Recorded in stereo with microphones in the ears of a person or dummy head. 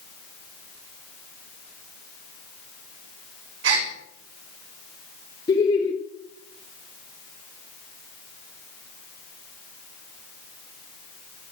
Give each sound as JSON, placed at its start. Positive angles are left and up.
{"t": 3.6, "sound": "a gasp", "side_deg": -70, "distance_m": 6.0}
{"t": 5.5, "sound": "laughter", "side_deg": 25, "distance_m": 1.3}